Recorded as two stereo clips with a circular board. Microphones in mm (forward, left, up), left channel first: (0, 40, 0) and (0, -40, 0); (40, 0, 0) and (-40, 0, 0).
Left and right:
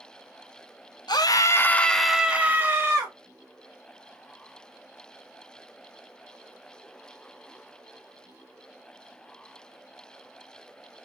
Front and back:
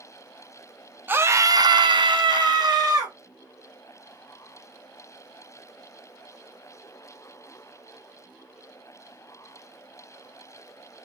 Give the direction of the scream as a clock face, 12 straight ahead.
8 o'clock.